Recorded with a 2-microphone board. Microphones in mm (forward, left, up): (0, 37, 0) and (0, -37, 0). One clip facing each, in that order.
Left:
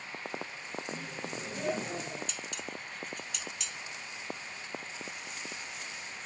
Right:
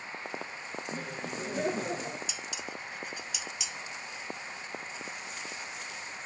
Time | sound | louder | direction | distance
0.9 | laughter | right 2 dB | 45° right (ahead or behind) | 7 m
2.3 | dishes clattering | right 1 dB | 5° right (ahead or behind) | 0.5 m